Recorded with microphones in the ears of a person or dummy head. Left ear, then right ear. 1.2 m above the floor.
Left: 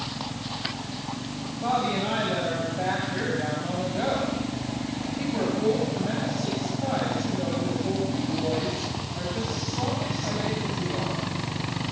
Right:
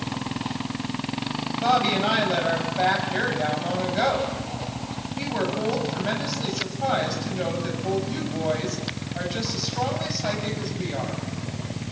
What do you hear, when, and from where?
1.6 s a woman speaking: 55° right (ahead or behind), 9 m